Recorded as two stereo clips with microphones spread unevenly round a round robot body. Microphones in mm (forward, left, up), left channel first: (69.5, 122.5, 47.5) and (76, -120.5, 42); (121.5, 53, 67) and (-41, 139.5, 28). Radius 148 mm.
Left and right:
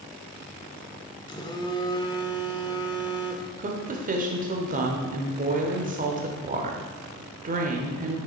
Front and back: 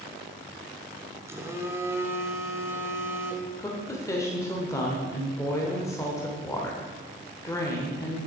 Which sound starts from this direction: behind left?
A phone buzzing, at 1.3 s.